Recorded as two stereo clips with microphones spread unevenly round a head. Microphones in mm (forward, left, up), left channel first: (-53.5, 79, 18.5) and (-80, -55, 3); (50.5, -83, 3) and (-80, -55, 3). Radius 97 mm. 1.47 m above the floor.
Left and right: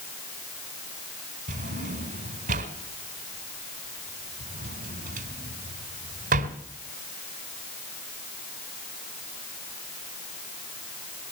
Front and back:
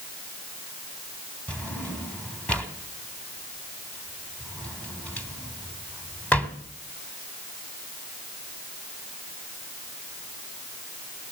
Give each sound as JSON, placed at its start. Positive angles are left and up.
{"t": 1.5, "sound": "a drawer", "azimuth_deg": -90, "distance_m": 2.5}